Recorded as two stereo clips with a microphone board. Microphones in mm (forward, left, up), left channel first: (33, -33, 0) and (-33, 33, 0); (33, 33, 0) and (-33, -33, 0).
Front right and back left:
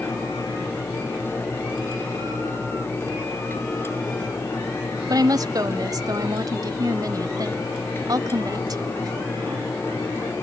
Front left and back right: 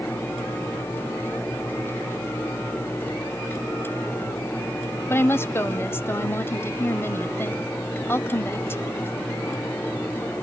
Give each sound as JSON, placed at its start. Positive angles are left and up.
{"t": 5.1, "sound": "a woman speaking", "azimuth_deg": 100, "distance_m": 1.7}